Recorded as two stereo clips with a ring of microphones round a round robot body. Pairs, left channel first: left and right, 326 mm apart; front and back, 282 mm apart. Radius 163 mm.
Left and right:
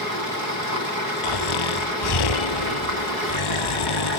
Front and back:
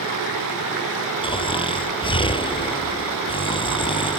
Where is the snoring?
75° left.